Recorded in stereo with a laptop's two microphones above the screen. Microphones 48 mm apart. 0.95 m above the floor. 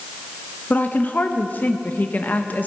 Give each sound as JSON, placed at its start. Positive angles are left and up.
{"t": 0.7, "sound": "a woman speaking", "side_deg": 40, "distance_m": 0.7}